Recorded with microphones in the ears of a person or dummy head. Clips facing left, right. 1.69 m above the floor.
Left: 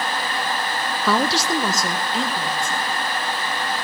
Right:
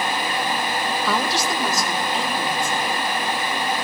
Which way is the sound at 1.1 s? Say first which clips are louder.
Left 6 dB; 50° left (ahead or behind).